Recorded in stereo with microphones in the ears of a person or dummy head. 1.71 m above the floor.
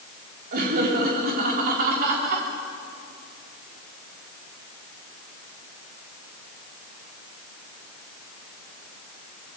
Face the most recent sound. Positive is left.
turn(degrees=-55)  # may be behind; listen again after turning